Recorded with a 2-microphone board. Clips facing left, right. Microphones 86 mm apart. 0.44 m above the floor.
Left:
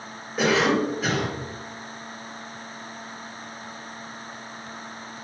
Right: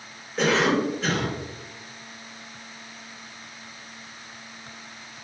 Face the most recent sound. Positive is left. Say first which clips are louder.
# left 1 dB
turn(degrees=5)  # may be behind; listen again after turning